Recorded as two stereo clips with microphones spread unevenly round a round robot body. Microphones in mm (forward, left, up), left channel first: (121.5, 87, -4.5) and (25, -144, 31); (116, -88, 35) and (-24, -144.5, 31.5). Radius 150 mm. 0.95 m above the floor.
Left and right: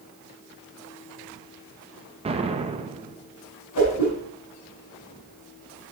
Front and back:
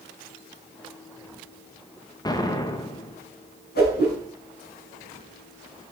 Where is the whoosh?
55° left, 5.5 m.